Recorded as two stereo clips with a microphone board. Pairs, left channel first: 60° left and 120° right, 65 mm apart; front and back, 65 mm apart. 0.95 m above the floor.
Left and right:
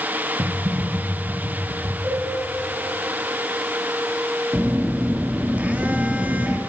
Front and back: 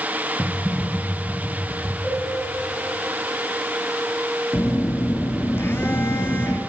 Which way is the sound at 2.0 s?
75° right.